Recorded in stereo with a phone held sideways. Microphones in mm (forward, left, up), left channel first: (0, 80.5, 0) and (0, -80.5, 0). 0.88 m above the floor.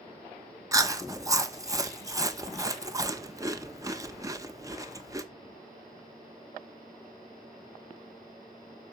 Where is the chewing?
20° right (ahead or behind), 0.8 m.